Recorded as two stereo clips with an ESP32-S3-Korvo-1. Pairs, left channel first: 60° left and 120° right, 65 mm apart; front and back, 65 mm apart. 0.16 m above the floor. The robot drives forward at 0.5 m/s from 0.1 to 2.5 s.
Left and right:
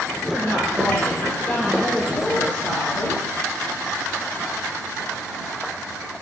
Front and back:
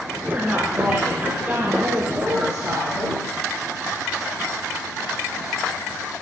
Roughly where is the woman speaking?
Behind left.